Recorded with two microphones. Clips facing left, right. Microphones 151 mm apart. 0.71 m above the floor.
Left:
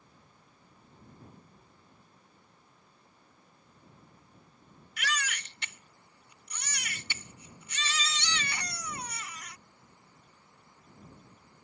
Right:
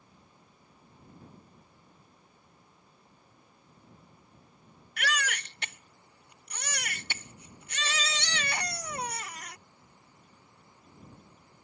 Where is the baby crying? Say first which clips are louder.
Right 3 dB; 60° right (ahead or behind).